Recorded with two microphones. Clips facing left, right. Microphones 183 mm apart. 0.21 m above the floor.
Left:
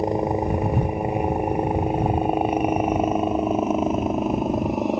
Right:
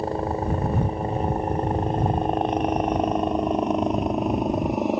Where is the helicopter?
15° left (ahead or behind); by 5.0 s centre (ahead or behind).